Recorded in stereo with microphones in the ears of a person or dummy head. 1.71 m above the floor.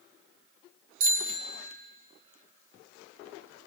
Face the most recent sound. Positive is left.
turn(degrees=-55)  # may be behind; listen again after turning